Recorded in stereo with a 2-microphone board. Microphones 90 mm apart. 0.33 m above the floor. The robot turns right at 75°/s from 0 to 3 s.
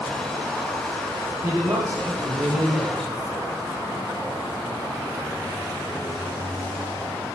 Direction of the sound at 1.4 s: 115° right.